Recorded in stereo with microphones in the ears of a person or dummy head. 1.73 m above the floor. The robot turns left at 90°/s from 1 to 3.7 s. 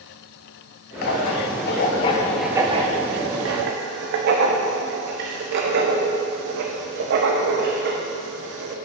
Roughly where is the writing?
Left.